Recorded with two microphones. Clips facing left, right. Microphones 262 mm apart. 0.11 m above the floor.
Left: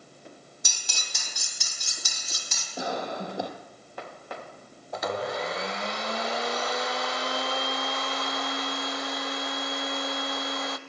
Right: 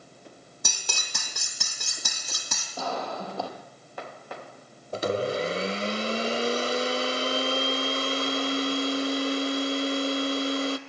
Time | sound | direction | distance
0.6 | cutlery clinking | 60° right (ahead or behind) | 3 m
2.8 | a cough | 15° left (ahead or behind) | 3.5 m
4.9 | a blender | 30° right (ahead or behind) | 0.9 m